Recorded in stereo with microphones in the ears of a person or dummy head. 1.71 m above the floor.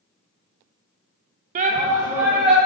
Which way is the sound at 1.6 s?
45° right (ahead or behind).